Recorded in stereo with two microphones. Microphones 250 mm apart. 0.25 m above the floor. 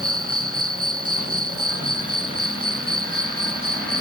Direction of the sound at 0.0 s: 60° right (ahead or behind).